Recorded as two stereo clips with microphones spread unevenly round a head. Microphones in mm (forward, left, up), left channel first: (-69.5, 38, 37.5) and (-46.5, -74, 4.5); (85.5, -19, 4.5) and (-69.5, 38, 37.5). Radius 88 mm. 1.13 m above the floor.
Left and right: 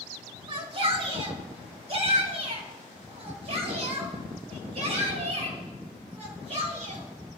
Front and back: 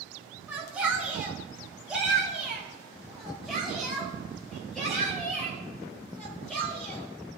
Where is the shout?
115° right, 4.5 m; by 7.0 s 105° right, 8.5 m.